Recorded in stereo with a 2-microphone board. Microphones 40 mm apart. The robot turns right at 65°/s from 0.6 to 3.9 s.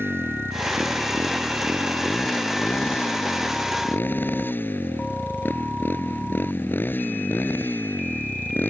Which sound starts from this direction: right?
A motorcycle, at 0.0 s.